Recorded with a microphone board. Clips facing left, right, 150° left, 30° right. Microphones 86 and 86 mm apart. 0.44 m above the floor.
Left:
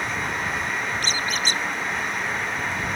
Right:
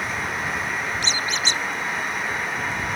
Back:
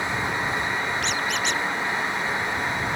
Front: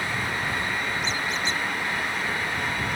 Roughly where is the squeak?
Behind left.